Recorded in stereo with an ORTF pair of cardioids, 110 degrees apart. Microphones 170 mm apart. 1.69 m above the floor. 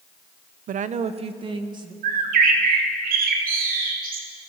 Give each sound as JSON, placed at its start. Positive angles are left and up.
{"t": 0.7, "sound": "a woman speaking", "azimuth_deg": -55, "distance_m": 0.9}
{"t": 2.0, "sound": "a bird", "azimuth_deg": -60, "distance_m": 3.0}